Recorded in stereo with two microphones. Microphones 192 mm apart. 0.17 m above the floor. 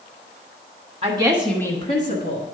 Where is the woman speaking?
35° right (ahead or behind), 1.3 m; by 2.4 s 55° left (ahead or behind), 1.9 m.